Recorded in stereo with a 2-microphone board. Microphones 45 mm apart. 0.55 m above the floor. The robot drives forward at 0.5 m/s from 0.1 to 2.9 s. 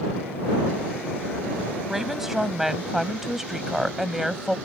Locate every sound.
1.9 s a woman speaking: 5° right (ahead or behind)